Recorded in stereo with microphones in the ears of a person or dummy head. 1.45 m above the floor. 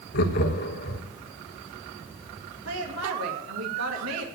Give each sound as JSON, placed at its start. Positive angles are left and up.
{"t": 0.1, "sound": "laughter", "side_deg": 50, "distance_m": 1.3}
{"t": 2.6, "sound": "a woman speaking", "side_deg": -80, "distance_m": 2.5}